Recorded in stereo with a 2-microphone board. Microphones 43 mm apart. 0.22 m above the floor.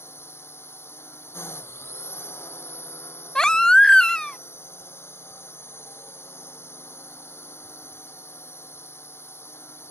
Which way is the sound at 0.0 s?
70° left (ahead or behind).